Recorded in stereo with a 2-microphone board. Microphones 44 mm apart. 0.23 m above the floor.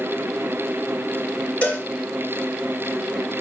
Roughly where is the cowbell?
Left.